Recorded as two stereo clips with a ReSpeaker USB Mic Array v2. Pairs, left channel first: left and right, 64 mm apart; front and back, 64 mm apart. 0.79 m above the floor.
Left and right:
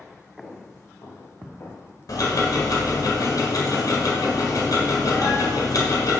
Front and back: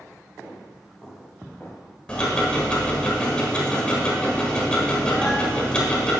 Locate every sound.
0.4 s footsteps: 95° left, 4 m; by 1.9 s 80° left, 5 m
2.1 s ticking: 75° left, 1.8 m